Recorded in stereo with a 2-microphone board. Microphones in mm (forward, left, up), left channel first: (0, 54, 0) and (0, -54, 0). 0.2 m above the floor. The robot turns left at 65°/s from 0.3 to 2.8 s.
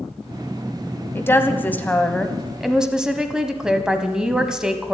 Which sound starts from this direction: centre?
A woman speaking, at 1.1 s.